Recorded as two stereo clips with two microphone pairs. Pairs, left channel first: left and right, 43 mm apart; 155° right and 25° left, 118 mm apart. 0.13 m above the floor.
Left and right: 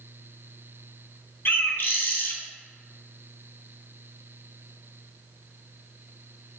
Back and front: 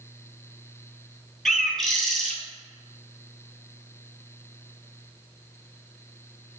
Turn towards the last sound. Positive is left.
turn(degrees=115)